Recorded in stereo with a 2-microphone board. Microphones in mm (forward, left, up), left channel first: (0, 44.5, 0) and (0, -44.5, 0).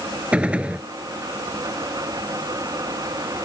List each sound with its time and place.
0.3 s a gunshot: 15° right (ahead or behind)